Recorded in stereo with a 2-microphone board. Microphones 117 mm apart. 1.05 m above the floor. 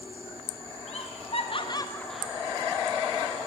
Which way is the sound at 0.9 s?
70° left (ahead or behind).